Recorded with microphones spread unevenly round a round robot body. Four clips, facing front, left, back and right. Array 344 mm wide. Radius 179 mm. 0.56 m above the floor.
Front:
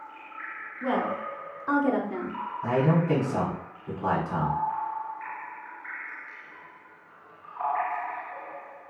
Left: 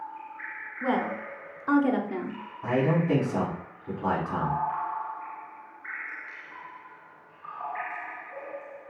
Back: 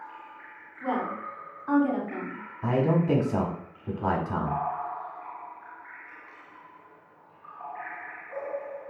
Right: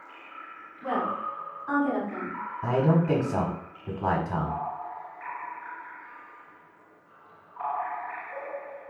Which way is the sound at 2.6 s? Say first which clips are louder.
Right 1 dB, even; 130° right.